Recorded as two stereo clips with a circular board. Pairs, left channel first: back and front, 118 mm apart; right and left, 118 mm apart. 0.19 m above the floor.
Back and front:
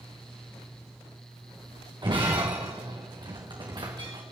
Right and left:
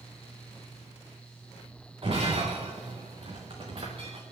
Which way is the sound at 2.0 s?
50° left.